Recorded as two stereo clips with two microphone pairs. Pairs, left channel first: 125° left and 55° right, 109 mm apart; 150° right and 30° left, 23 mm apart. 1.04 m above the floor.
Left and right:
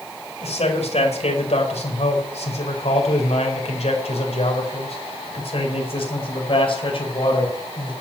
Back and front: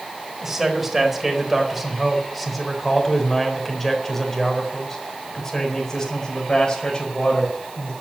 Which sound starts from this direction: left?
A man speaking, at 0.4 s.